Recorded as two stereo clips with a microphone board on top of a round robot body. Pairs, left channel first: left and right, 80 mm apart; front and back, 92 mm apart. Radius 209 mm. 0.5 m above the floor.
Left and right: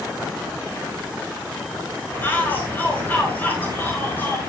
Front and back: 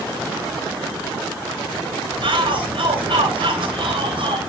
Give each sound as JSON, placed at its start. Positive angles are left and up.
{"t": 2.2, "sound": "a shout", "azimuth_deg": 155, "distance_m": 3.5}